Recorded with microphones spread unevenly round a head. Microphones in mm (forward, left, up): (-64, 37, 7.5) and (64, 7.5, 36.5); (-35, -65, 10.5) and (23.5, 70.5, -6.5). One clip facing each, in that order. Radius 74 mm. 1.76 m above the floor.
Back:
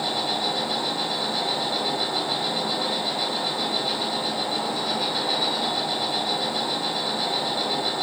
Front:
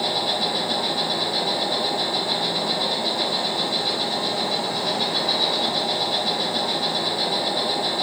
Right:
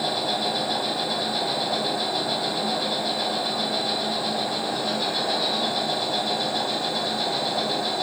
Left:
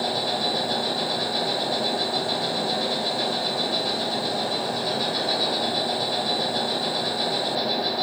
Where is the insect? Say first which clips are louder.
Front 2 dB, even; 5° left, 3.5 m.